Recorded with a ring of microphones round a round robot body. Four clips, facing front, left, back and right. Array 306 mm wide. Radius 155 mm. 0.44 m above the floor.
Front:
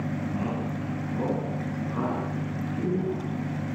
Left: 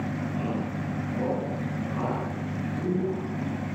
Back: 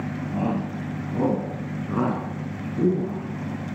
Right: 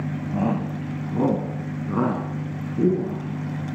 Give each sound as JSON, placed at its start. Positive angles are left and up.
{"t": 0.3, "sound": "a shout", "azimuth_deg": -115, "distance_m": 3.5}